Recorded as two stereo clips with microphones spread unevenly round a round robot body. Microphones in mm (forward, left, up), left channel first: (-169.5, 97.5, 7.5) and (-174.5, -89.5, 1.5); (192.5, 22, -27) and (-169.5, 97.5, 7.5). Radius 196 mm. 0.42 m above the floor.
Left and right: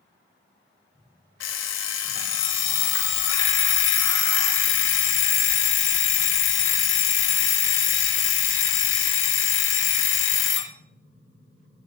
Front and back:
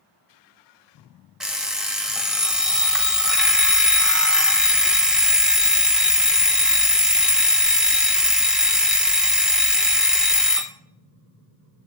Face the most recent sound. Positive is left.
turn(degrees=75)